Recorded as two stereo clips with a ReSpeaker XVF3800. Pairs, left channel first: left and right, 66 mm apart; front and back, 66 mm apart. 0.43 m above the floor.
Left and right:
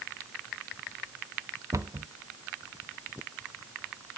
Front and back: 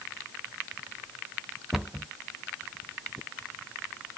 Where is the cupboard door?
95° right, 0.6 m.